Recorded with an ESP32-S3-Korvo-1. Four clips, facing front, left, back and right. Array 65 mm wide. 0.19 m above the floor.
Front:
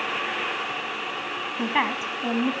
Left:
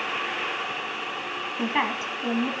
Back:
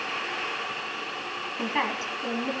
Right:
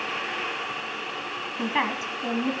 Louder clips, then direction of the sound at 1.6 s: Even, front 3 dB; 5° left.